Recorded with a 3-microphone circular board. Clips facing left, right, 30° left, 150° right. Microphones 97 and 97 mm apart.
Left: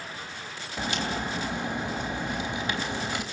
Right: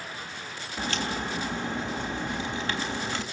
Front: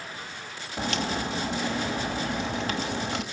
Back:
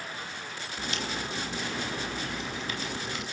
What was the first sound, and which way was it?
A crack, 15° left.